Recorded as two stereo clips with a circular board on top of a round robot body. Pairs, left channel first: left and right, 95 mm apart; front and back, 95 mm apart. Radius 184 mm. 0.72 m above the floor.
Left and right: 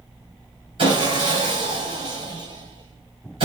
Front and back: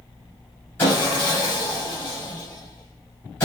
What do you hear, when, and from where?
0.8 s sawing: 70° right, 0.7 m